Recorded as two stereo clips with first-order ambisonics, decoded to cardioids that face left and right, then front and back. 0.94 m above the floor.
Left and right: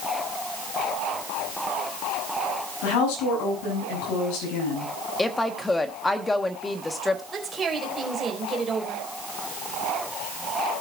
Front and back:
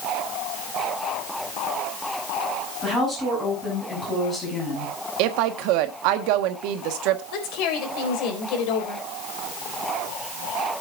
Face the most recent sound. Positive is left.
turn(degrees=-15)